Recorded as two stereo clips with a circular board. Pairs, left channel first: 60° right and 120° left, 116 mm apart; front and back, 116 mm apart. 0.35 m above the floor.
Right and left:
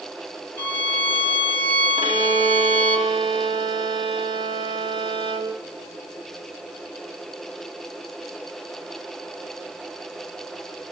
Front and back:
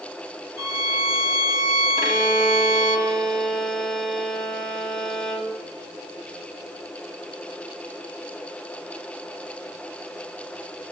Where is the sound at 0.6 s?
130° right, 1.5 m.